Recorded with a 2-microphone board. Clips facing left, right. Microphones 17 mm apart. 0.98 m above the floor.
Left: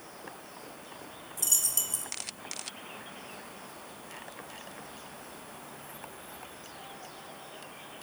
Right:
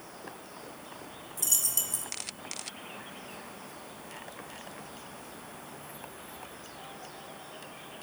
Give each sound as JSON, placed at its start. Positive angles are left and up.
{"t": 1.4, "sound": "a dropped coin", "side_deg": 5, "distance_m": 0.7}